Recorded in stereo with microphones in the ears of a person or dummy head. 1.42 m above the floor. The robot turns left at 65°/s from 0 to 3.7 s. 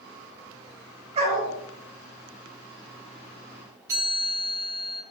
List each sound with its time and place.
1.1 s a dog barking: 40° right (ahead or behind), 2.5 m; by 1.5 s 65° right (ahead or behind), 2.5 m
3.9 s a chime: 10° right (ahead or behind), 3.5 m